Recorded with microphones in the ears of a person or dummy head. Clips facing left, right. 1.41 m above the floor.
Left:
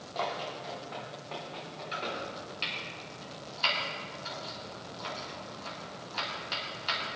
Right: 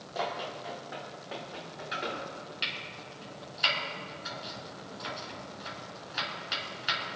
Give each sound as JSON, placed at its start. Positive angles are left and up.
{"t": 0.1, "sound": "running footsteps", "side_deg": -15, "distance_m": 3.5}
{"t": 1.9, "sound": "chopping", "side_deg": -15, "distance_m": 3.0}